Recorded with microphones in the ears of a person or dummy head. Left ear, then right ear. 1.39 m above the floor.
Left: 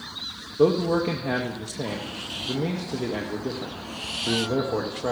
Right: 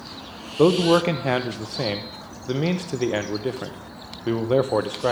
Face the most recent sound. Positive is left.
turn(degrees=-50)  # may be behind; listen again after turning